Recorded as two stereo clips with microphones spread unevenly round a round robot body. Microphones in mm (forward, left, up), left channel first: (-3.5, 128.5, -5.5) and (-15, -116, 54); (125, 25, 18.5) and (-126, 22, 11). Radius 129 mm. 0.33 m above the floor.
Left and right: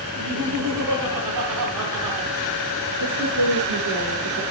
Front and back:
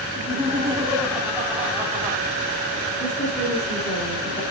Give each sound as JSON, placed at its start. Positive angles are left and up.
{"t": 0.1, "sound": "laughter", "azimuth_deg": -95, "distance_m": 3.0}
{"t": 3.0, "sound": "a woman speaking", "azimuth_deg": -65, "distance_m": 6.5}